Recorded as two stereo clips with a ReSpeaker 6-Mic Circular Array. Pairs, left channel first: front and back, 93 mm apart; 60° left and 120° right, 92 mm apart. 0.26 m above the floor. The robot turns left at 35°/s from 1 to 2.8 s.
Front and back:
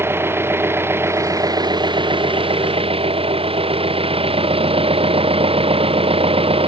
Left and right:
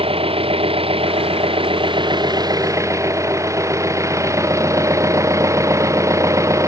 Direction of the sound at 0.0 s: 115° right.